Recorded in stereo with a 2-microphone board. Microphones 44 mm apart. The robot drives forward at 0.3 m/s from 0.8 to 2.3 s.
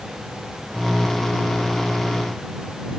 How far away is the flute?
I don't hear a flute.